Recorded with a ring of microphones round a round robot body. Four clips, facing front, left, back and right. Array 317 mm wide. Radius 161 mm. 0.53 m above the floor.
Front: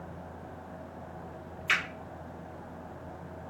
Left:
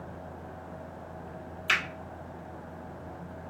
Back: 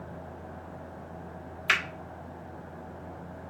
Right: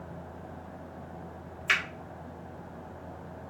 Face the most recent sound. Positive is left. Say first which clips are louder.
# even, back 2 dB
turn(degrees=175)